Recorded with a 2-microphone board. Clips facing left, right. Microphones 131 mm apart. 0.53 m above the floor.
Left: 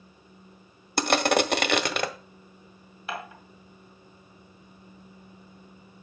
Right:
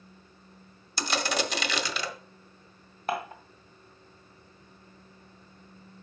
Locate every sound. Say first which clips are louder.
1.0 s crushing: left 7 dB; 60° left (ahead or behind), 0.7 m
3.1 s dishes clattering: right 5 dB; 45° right (ahead or behind), 1.7 m